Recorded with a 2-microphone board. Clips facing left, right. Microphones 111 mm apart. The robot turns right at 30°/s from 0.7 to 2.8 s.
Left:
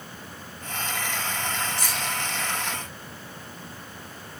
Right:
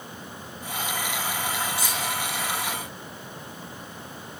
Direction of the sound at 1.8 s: 50° left (ahead or behind).